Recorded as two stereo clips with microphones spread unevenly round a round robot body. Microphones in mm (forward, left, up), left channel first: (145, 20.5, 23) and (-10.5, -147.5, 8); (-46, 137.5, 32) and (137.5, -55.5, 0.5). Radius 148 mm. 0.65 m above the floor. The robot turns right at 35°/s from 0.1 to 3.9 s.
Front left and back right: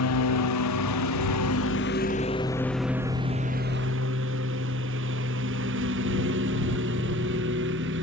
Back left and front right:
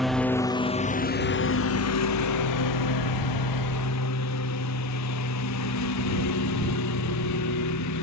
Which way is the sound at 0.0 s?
45° left.